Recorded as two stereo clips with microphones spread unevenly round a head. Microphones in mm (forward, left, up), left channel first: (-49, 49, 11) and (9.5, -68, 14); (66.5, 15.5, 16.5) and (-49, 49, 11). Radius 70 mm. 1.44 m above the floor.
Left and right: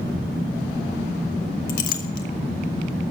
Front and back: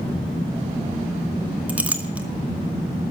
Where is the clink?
85° left, 1.3 m.